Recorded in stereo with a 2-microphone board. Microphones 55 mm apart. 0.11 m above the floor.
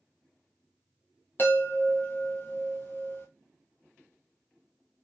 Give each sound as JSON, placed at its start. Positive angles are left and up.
{"t": 1.4, "sound": "a chime", "side_deg": 40, "distance_m": 1.6}